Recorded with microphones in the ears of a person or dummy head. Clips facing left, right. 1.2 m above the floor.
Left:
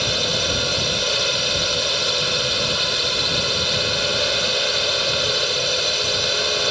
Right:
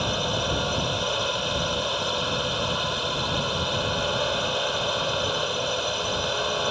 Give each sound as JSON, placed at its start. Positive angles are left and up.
{"t": 0.0, "sound": "a drone", "side_deg": 25}